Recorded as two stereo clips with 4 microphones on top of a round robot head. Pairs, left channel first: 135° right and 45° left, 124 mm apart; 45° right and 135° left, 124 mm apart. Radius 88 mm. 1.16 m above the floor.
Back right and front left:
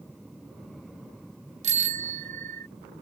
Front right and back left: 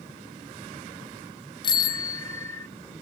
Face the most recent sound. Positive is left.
turn(degrees=25)